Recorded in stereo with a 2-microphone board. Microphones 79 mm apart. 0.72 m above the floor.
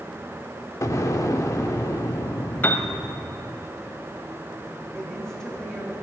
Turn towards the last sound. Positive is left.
turn(degrees=10)  # may be behind; listen again after turning